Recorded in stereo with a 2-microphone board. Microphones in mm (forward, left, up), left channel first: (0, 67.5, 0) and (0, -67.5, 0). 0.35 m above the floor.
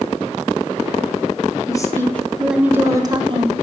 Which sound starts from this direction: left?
A woman speaking, at 1.7 s.